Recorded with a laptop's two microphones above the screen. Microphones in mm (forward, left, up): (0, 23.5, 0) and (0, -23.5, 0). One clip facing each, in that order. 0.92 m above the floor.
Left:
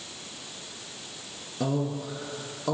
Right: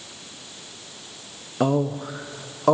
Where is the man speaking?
50° right (ahead or behind), 0.9 m.